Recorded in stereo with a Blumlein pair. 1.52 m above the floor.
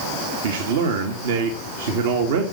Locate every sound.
0.4 s a man speaking: 55° right, 2 m